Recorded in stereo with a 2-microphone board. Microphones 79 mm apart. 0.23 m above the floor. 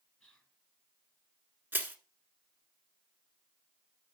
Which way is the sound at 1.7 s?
25° right (ahead or behind).